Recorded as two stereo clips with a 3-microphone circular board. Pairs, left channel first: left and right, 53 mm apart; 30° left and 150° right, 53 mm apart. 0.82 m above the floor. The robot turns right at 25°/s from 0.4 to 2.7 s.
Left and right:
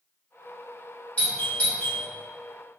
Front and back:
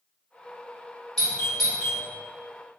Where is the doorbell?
105° left, 1.0 m; by 2.0 s 125° left, 1.0 m.